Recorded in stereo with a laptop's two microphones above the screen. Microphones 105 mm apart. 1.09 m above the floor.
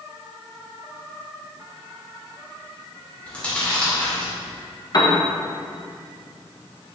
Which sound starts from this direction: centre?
Chewing, at 3.3 s.